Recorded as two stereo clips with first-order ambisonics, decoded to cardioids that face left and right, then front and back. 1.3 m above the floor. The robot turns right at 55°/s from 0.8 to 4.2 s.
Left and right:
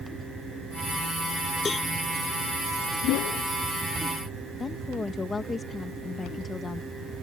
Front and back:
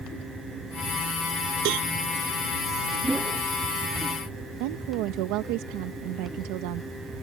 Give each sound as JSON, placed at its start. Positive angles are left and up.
{"t": 1.6, "sound": "a cowbell", "azimuth_deg": 165}
{"t": 3.0, "sound": "a whoosh", "azimuth_deg": 90}
{"t": 4.6, "sound": "a woman speaking", "azimuth_deg": 165}